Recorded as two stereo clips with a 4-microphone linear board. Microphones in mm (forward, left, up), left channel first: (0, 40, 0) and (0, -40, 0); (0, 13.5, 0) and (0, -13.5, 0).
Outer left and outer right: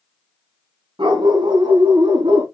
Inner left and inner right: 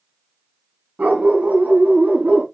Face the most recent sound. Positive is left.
turn(degrees=-80)